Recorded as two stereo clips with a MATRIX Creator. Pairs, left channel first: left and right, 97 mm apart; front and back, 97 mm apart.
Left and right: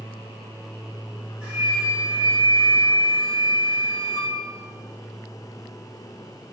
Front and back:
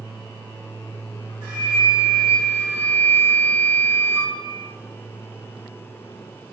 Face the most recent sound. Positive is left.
turn(degrees=-155)